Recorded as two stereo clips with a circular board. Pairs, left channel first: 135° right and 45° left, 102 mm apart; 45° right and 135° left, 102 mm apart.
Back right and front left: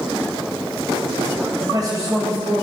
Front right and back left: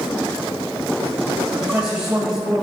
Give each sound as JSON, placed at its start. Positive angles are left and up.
{"t": 1.5, "sound": "a man speaking", "azimuth_deg": 55, "distance_m": 1.5}